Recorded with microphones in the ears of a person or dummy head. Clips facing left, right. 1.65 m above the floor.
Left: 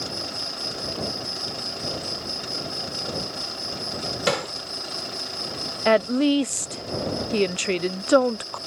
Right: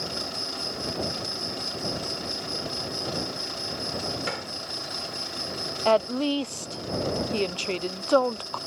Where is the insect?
5° left (ahead or behind).